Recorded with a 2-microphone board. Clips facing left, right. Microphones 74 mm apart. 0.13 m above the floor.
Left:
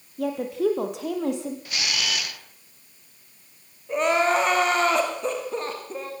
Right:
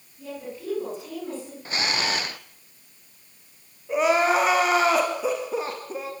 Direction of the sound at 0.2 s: 70° left (ahead or behind).